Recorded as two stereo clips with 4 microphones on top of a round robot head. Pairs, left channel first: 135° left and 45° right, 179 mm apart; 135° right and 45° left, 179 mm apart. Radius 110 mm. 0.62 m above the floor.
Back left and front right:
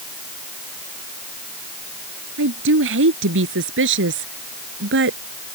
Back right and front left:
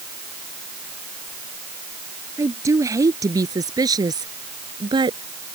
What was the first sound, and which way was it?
A woman speaking, 30° right.